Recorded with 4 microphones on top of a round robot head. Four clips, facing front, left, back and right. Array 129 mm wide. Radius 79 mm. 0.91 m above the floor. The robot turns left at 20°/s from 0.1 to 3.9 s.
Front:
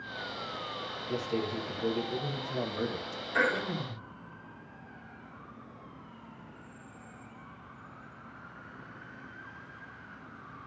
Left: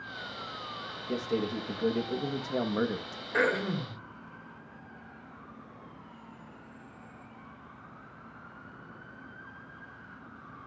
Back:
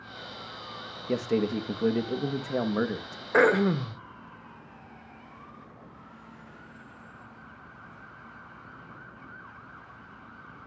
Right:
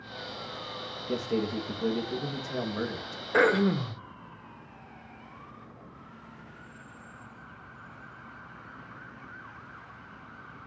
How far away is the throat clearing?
About 1.4 m.